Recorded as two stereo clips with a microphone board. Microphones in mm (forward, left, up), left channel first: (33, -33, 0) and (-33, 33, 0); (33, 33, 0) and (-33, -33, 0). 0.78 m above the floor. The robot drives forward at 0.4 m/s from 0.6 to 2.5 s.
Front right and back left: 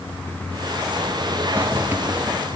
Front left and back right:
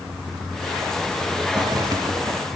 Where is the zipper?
165° right, 1.7 m; by 2.6 s 170° right, 2.0 m.